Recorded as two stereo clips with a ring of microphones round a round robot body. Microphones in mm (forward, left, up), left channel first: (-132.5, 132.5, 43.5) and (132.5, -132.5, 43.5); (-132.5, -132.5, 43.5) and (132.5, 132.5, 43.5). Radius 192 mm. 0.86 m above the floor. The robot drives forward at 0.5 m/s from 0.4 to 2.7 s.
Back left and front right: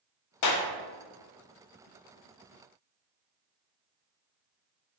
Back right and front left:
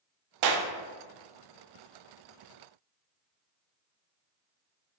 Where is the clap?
85° left, 0.6 m; by 0.7 s 100° left, 0.6 m.